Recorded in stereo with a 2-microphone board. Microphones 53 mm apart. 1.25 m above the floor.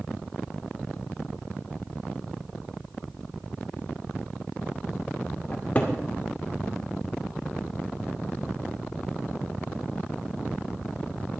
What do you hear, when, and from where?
5.5 s a cupboard door: 30° left (ahead or behind), 2 m